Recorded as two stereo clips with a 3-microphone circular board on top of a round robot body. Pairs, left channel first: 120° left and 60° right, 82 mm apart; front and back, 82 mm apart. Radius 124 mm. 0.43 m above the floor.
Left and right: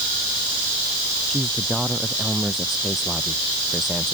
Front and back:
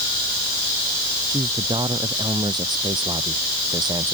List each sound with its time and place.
1.3 s a man speaking: 150° right